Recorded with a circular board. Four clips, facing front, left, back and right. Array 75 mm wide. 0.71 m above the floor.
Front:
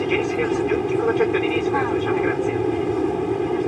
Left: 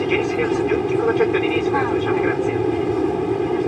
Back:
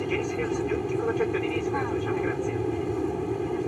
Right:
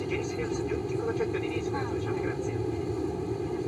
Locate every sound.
0.0 s an aircraft: 60° left